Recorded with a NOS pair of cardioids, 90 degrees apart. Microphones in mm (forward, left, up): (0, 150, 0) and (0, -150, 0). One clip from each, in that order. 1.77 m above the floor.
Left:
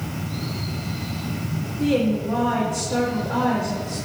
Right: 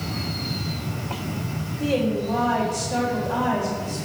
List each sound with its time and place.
1.8 s a woman speaking: 10° left, 3 m